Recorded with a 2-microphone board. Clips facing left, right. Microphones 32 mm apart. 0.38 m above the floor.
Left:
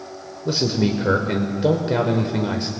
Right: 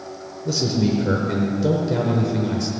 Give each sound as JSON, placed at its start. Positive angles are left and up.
{"t": 0.5, "sound": "a man speaking", "side_deg": 35, "distance_m": 1.0}